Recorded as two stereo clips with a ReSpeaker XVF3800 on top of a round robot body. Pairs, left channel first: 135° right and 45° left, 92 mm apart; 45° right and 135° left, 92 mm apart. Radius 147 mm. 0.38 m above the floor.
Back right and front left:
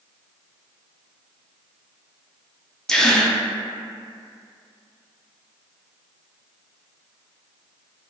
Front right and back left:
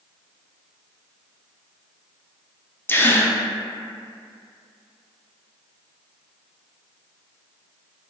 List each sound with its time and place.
2.9 s a gasp: 60° right, 0.5 m